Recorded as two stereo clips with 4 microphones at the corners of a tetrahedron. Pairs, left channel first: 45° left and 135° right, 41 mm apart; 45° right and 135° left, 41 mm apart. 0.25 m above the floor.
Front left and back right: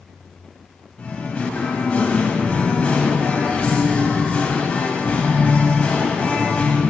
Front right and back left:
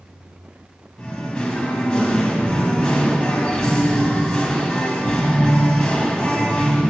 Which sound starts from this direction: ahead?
Singing, at 1.0 s.